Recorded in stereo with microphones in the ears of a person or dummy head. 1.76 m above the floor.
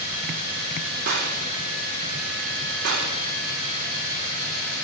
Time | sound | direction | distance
1.1 | a gunshot | 50° right (ahead or behind) | 5 m